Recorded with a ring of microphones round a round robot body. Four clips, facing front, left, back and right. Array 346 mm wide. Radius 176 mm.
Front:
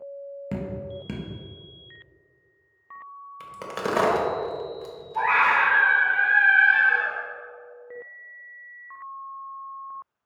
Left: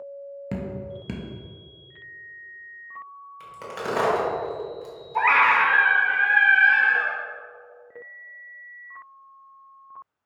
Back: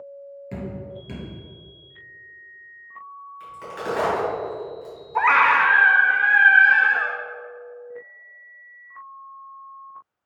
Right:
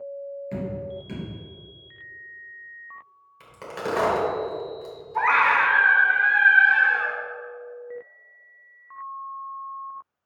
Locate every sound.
0.5 s dripping: 60° left, 1.3 m
3.4 s a crack: straight ahead, 1.6 m
5.2 s a scream: 165° left, 0.9 m